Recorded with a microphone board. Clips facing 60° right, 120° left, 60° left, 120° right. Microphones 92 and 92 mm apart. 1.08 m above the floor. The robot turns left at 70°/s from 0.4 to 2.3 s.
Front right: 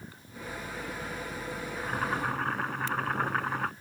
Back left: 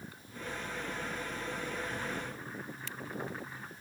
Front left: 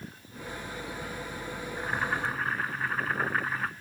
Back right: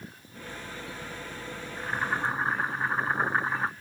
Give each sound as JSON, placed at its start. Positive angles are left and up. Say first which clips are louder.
{"t": 1.8, "sound": "boiling", "louder": "front right 6 dB, back right 1 dB", "azimuth_deg": -20}